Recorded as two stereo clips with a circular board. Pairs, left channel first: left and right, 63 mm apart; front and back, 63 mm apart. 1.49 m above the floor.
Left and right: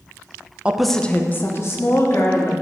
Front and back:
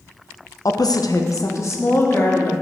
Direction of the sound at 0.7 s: 20° right.